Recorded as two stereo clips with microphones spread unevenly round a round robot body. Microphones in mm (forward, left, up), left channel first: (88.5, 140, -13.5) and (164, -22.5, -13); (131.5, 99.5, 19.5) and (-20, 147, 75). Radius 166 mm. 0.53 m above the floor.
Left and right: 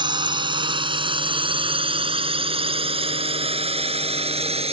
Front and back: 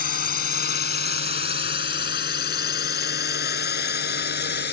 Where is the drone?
Straight ahead; by 4.7 s 10° right.